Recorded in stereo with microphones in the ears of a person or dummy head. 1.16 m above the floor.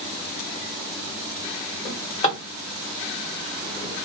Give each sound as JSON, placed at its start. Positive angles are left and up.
{"t": 1.9, "sound": "a drawer", "side_deg": 25, "distance_m": 2.5}